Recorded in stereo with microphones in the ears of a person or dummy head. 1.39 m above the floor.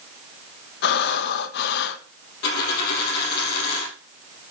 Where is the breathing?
60° left (ahead or behind), 1.0 m.